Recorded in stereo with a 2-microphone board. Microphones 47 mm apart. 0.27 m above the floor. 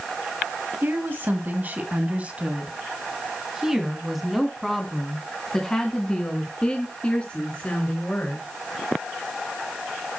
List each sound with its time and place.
0.8 s a woman speaking: 50° right (ahead or behind), 2 m; by 8.5 s 30° left (ahead or behind), 3.5 m